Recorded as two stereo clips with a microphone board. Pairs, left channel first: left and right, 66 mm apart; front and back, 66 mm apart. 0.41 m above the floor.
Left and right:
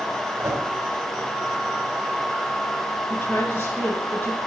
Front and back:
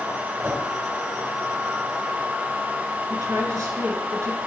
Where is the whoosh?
130° right, 2.5 m.